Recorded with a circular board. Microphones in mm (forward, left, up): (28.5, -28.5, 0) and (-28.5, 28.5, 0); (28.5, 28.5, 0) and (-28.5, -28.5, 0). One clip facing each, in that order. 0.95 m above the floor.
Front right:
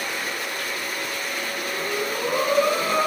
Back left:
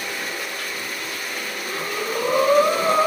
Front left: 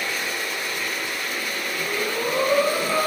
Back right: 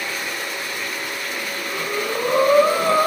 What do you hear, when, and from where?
1.6 s breathing: 170° right, 2 m